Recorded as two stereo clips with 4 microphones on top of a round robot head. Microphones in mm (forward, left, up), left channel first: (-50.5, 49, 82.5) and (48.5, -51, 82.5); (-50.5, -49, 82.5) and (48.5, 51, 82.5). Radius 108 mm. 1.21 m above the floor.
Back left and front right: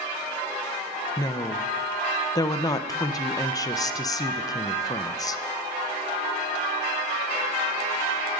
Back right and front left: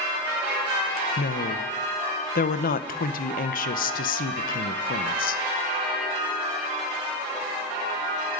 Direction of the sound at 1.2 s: 160° right.